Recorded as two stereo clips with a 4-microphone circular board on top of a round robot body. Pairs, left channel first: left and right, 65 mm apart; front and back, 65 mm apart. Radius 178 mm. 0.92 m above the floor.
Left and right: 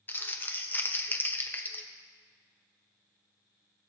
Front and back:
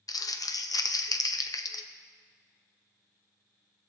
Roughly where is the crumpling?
Ahead left.